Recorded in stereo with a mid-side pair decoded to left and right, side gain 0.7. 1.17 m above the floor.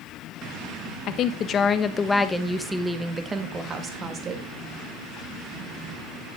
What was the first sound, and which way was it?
A woman speaking, 50° left.